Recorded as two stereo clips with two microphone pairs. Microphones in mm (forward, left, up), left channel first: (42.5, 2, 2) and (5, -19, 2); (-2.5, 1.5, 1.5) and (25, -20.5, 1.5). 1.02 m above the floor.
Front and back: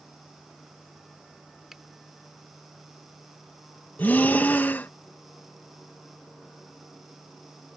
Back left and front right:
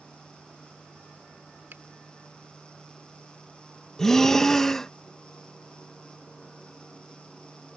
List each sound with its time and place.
1.7 s a finger snap: 65° right
4.0 s breathing: 65° left